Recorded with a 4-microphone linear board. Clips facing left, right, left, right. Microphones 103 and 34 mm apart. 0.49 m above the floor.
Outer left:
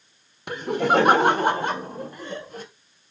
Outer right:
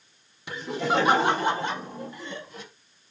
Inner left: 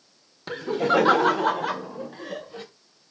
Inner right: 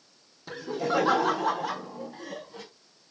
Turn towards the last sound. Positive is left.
turn(degrees=45)  # may be behind; listen again after turning